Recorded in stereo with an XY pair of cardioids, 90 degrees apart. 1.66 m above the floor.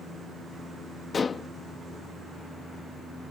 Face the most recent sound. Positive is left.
turn(degrees=45)